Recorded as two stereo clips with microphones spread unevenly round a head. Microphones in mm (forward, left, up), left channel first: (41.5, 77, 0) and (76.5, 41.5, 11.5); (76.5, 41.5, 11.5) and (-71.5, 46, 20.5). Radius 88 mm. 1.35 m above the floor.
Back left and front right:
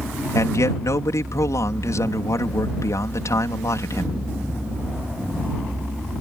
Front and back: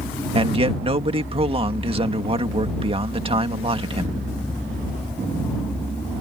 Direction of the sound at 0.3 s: 125° left.